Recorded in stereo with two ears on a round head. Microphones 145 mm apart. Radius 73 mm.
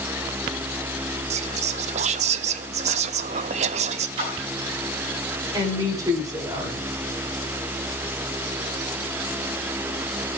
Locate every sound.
1.3 s whispering: 45° right (ahead or behind), 0.6 m
4.2 s a splash: 35° right (ahead or behind), 6.5 m
5.5 s a woman speaking: 25° right (ahead or behind), 3.5 m